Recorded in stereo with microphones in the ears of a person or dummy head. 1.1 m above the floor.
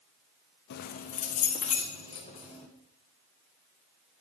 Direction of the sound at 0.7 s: 65° left (ahead or behind).